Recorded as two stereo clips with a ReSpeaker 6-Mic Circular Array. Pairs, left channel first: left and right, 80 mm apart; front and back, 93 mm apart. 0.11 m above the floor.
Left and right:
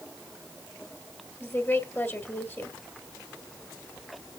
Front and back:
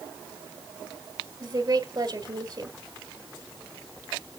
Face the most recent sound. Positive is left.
turn(degrees=145)